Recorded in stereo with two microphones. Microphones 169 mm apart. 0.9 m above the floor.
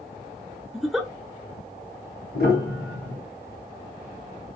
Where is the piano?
75° left (ahead or behind), 2.5 m.